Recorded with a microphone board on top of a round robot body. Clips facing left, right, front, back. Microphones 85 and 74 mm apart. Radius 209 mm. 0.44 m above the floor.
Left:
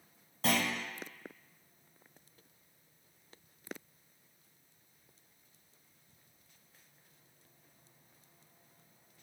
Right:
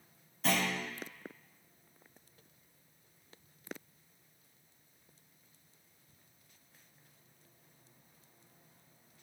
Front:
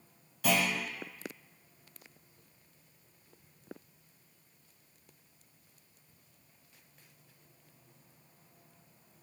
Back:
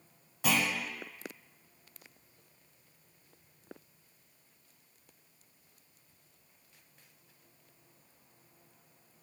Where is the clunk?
110° left, 0.9 m.